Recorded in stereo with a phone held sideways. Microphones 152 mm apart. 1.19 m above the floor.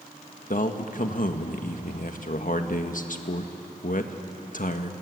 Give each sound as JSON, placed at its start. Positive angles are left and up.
{"t": 0.5, "sound": "a man speaking", "side_deg": 60, "distance_m": 1.6}